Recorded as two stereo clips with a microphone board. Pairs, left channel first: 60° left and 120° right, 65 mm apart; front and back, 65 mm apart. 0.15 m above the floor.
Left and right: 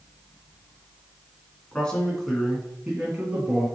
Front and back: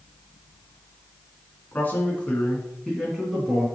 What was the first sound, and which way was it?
A man speaking, 5° left.